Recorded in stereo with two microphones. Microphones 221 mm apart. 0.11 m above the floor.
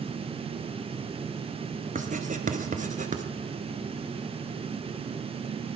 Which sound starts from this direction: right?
Writing, at 1.9 s.